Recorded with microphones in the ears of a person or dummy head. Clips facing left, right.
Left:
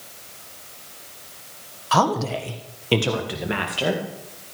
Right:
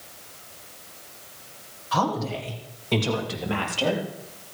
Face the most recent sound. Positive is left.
turn(degrees=15)  # may be behind; listen again after turning